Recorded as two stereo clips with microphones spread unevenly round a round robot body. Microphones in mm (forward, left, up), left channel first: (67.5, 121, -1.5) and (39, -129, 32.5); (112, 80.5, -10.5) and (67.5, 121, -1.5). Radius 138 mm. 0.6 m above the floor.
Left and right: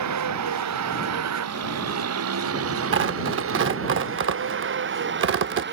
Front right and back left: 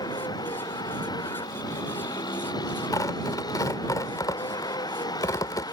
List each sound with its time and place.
0.0 s a vehicle: 80° right; by 5.7 s 50° right
2.9 s tearing paper: 55° right